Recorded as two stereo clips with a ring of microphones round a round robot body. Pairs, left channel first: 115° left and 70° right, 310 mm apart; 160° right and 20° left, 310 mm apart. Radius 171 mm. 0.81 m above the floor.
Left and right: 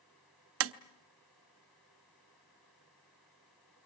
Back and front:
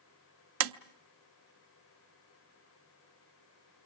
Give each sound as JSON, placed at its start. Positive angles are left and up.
{"t": 0.6, "sound": "tapping", "azimuth_deg": -20, "distance_m": 0.7}